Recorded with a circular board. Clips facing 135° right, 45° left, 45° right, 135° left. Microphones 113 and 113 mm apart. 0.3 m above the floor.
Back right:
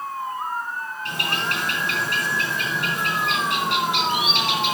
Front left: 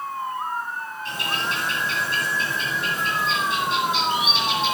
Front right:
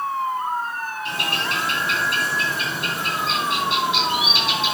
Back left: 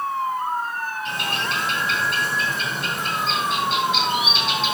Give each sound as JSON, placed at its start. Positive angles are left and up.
{"t": 1.1, "sound": "a bird", "azimuth_deg": -130, "distance_m": 3.0}